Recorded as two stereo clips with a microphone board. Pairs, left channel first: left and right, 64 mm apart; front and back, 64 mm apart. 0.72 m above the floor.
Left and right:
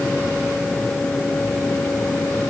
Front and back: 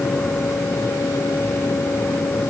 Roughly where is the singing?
I don't hear singing.